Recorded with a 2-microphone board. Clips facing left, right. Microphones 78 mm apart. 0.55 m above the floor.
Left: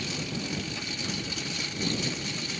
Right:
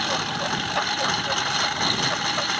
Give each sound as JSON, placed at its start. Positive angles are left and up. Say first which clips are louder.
{"t": 0.0, "sound": "a lawn mower", "louder": "right 9 dB", "side_deg": -65}